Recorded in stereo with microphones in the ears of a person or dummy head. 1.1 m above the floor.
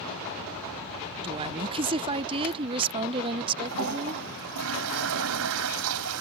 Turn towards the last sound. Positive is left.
turn(degrees=-70)  # may be behind; listen again after turning